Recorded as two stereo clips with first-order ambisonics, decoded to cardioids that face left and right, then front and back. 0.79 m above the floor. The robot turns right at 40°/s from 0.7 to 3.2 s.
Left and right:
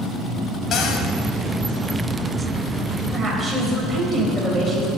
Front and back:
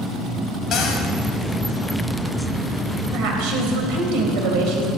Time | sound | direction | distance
0.7 | a cupboard door | 40° left | 1.7 m
3.1 | a woman speaking | 170° right | 4 m